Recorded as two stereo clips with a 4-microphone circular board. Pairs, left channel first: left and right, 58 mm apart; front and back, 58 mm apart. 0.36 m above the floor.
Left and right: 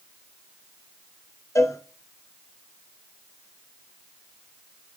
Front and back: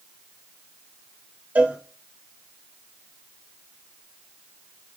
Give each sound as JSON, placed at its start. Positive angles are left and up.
{"t": 1.6, "sound": "a cowbell", "azimuth_deg": 115, "distance_m": 0.8}